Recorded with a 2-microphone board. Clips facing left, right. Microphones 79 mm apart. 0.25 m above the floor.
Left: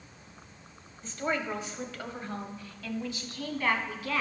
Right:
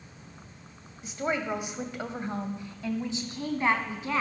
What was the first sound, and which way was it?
A woman speaking, 15° right (ahead or behind).